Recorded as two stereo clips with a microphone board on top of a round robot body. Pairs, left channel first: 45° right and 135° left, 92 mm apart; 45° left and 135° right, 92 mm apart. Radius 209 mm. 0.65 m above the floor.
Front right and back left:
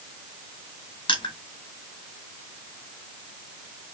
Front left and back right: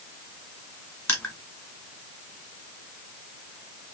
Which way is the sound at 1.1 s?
20° right.